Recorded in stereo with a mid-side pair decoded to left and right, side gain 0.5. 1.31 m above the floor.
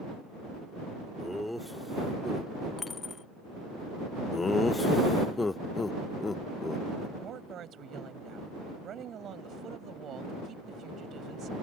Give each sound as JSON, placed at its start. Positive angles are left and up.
{"t": 1.2, "sound": "laughter", "azimuth_deg": 5}
{"t": 2.8, "sound": "a dropped coin", "azimuth_deg": 30}
{"t": 4.3, "sound": "laughter", "azimuth_deg": 25}
{"t": 7.2, "sound": "a woman speaking", "azimuth_deg": -55}